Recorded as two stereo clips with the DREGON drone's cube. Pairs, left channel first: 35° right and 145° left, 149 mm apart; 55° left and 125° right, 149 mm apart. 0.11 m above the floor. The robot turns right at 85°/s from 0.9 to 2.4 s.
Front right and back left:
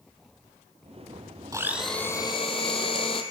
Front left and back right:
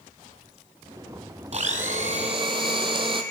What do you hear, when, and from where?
1.5 s a blender: 150° right, 0.7 m; by 3.2 s 75° right, 0.7 m